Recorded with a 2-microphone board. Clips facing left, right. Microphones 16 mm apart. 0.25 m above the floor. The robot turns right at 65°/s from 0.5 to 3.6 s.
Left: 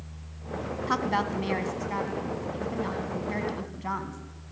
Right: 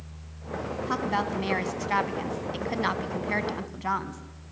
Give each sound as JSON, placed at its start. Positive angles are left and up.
{"t": 0.9, "sound": "a woman speaking", "azimuth_deg": 160, "distance_m": 1.7}